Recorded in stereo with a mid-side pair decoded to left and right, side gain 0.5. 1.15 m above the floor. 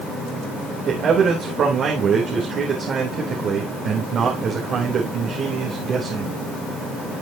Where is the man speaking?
55° right, 3.5 m.